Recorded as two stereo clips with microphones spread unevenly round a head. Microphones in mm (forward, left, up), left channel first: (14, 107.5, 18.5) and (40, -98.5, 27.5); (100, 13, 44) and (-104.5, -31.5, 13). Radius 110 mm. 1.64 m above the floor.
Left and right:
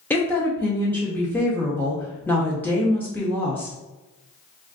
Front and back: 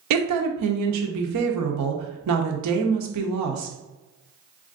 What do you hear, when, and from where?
0.1 s a woman speaking: straight behind, 0.6 m